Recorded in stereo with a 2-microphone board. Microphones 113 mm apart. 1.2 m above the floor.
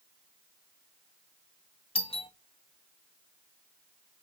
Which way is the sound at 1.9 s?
55° left (ahead or behind).